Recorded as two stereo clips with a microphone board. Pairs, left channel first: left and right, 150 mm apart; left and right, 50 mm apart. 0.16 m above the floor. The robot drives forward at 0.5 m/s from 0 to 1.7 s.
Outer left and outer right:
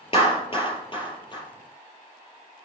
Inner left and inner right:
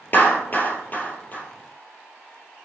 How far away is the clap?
About 2.5 m.